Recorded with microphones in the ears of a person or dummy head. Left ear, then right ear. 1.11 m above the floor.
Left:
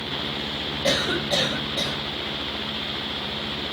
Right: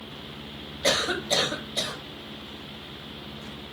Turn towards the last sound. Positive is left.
turn(degrees=-55)  # may be behind; listen again after turning